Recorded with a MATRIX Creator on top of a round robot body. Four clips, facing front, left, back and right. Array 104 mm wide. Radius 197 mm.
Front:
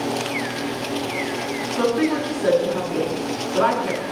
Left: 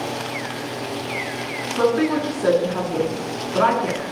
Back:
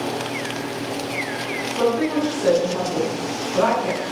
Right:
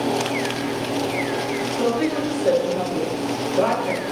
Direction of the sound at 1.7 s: 95° left.